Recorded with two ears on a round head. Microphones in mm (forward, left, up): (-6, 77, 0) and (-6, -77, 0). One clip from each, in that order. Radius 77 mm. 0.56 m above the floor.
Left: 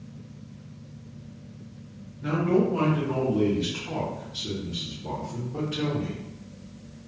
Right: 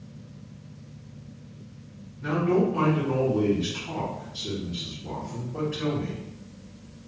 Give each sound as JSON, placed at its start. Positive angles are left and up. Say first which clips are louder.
{"t": 2.2, "sound": "a man speaking", "louder": "even", "side_deg": -15, "distance_m": 1.5}